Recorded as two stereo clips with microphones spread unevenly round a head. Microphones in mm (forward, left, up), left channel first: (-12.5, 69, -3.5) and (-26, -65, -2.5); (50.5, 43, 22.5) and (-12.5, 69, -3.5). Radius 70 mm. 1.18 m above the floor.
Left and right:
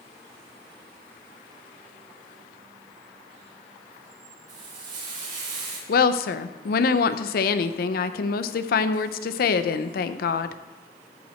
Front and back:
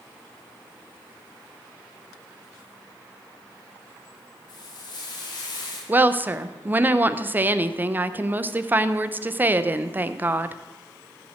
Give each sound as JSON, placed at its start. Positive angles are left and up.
{"t": 4.5, "sound": "frying", "azimuth_deg": -60, "distance_m": 6.0}
{"t": 5.9, "sound": "a woman speaking", "azimuth_deg": 100, "distance_m": 0.6}